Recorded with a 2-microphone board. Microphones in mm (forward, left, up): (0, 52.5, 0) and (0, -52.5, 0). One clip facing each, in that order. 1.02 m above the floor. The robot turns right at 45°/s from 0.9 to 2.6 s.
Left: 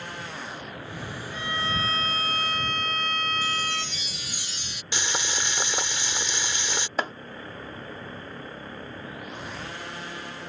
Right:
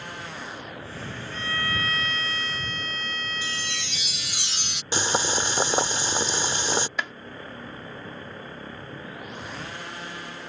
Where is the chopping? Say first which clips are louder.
Left 3 dB; 40° left (ahead or behind).